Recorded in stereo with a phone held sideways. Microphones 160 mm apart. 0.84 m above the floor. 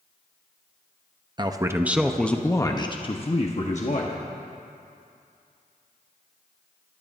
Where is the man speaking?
30° right (ahead or behind), 0.9 m; by 4.2 s 55° left (ahead or behind), 1.5 m.